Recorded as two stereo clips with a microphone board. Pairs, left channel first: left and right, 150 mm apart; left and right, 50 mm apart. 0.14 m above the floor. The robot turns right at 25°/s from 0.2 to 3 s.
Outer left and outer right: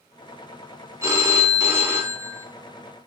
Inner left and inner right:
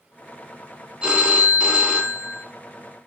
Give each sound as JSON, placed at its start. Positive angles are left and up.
{"t": 1.0, "sound": "a phone ringing", "side_deg": -20, "distance_m": 0.6}